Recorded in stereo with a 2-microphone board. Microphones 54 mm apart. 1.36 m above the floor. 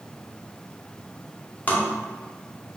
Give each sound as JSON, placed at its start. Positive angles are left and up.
{"t": 1.7, "sound": "tapping", "side_deg": 30, "distance_m": 1.0}